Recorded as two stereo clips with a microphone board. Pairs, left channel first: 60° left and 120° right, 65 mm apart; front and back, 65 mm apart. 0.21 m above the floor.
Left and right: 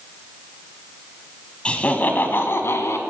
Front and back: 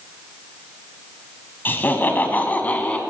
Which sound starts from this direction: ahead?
Laughter, at 1.6 s.